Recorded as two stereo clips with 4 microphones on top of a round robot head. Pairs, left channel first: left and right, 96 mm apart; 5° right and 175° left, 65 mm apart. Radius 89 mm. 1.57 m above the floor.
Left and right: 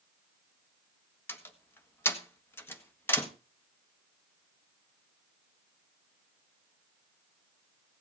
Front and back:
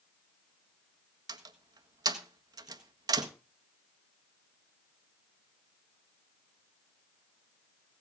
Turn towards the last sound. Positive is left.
turn(degrees=155)